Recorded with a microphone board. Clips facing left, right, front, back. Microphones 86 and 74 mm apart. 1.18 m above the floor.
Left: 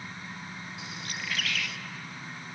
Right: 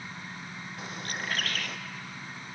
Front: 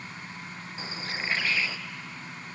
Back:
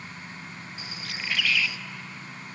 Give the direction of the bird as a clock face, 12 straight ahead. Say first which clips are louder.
Right 4 dB, front 3 dB; 2 o'clock.